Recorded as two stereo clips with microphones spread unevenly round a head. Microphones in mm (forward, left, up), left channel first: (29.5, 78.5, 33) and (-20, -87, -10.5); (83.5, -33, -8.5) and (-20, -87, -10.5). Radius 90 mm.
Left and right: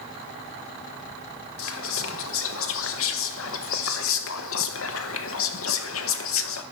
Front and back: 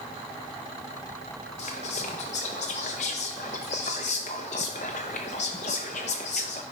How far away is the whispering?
About 0.6 m.